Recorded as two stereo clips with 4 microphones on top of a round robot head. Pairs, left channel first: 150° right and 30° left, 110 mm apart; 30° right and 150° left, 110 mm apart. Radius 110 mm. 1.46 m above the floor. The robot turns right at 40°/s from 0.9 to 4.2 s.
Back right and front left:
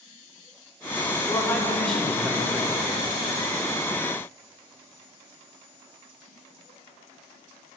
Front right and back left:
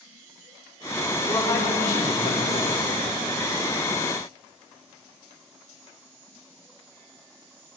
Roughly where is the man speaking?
Right.